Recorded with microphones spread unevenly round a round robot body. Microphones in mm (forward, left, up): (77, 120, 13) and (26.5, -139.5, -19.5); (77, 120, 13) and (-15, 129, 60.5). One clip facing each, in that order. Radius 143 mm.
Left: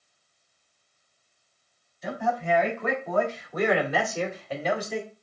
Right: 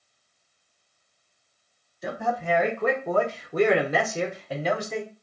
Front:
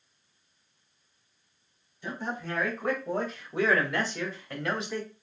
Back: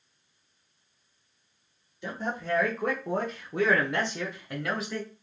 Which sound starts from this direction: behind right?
A man speaking, at 2.0 s.